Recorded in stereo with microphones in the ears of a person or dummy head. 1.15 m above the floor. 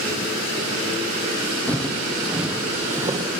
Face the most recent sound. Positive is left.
turn(degrees=-30)  # may be behind; listen again after turning